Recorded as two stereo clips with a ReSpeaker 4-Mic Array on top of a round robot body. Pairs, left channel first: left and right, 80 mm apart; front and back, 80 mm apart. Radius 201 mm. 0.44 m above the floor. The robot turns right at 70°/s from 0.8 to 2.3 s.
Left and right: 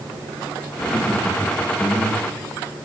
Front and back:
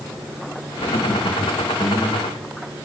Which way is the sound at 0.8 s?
20° right.